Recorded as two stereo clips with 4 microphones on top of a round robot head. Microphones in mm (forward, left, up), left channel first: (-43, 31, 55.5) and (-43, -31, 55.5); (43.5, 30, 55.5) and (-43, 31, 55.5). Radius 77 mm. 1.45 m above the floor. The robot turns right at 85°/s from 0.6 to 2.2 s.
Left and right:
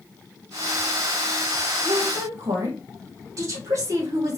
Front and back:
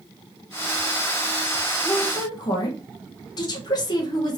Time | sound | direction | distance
1.9 | a woman speaking | 75° right | 1.0 m